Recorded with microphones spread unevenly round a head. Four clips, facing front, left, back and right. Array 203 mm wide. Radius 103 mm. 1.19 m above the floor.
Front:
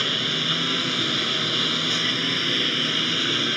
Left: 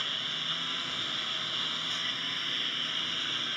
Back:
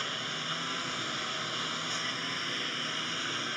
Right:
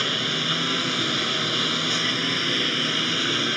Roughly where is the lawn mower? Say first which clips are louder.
Right 12 dB, front 9 dB; ahead right.